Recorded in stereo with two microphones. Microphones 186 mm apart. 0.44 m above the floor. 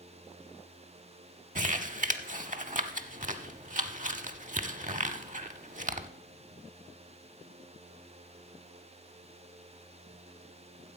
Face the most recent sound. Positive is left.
turn(degrees=-45)  # may be behind; listen again after turning